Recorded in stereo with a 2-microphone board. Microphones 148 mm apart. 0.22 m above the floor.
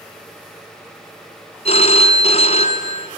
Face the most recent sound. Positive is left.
turn(degrees=50)  # may be behind; listen again after turning